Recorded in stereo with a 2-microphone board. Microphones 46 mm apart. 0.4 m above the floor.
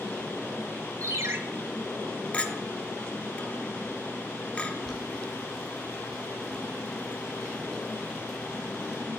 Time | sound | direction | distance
1.0 | a ringtone | 70° right (ahead or behind) | 0.8 m
2.3 | a clink | 25° left (ahead or behind) | 0.6 m
4.8 | boiling | centre (ahead or behind) | 2.5 m